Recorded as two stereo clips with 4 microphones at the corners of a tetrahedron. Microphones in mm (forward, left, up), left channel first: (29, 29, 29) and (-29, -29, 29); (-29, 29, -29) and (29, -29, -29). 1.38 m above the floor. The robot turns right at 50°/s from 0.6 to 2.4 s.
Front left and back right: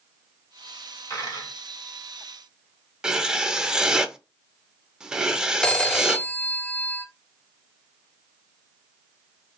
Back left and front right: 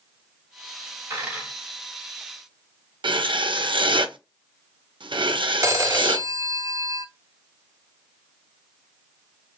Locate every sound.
1.1 s a dropped coin: 15° left, 1.6 m; by 1.5 s 35° left, 1.6 m
3.0 s writing: 55° right, 0.6 m
5.6 s a phone ringing: 25° right, 0.6 m